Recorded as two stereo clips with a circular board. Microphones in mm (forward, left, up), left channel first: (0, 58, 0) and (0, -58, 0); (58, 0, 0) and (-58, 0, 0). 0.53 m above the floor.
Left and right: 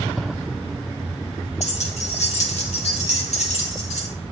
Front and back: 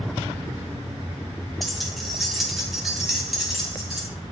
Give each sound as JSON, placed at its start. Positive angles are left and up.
{"t": 1.6, "sound": "keys jangling", "azimuth_deg": 90, "distance_m": 1.4}